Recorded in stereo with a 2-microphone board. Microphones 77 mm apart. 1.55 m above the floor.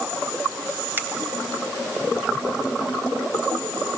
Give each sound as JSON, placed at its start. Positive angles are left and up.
{"t": 1.0, "sound": "a finger snap", "side_deg": -25, "distance_m": 4.0}